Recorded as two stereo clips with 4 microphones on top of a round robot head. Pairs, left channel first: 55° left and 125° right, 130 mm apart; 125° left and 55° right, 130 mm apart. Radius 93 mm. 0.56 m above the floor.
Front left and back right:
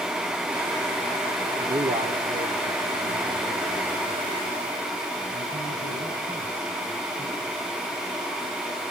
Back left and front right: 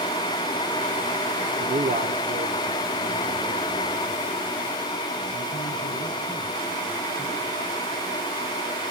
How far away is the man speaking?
About 1.4 m.